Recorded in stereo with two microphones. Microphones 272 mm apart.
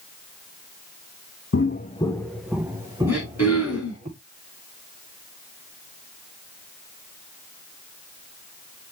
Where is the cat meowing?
No cat meowing in this recording.